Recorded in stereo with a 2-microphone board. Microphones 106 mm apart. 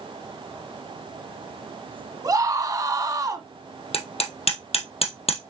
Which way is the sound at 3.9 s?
60° left (ahead or behind).